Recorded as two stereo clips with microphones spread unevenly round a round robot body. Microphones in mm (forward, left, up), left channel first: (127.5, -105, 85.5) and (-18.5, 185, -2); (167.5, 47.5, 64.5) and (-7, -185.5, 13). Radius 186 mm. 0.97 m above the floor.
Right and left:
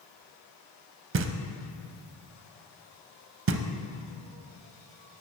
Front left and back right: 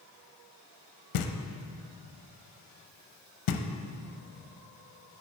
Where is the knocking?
70° left, 0.5 m.